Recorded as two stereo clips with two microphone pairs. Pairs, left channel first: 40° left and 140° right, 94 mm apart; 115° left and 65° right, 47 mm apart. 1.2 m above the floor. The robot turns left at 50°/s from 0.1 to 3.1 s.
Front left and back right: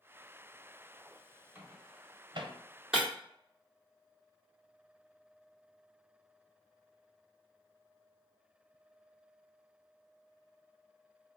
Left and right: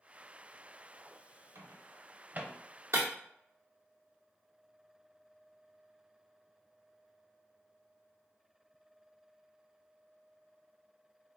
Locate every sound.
1.6 s a microwave: 70° right, 0.7 m; by 2.5 s 120° right, 0.7 m
2.9 s breaking glass: 60° right, 1.6 m; by 3.1 s 65° right, 1.6 m